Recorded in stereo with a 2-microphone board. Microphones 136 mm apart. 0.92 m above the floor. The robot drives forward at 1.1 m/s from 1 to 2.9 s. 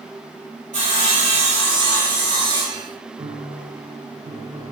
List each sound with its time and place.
0.7 s sawing: 60° right (ahead or behind), 3 m; by 2.8 s 35° right (ahead or behind), 4 m
3.2 s a piano: 40° right (ahead or behind), 0.9 m